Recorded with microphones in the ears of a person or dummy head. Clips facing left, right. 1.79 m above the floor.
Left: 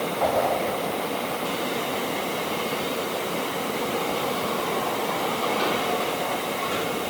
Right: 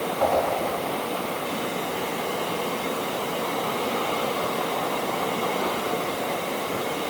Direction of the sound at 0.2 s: 40° right (ahead or behind).